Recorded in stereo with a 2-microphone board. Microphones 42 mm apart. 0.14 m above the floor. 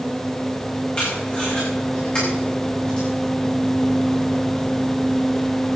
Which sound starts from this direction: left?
Tape being pulled, at 1.0 s.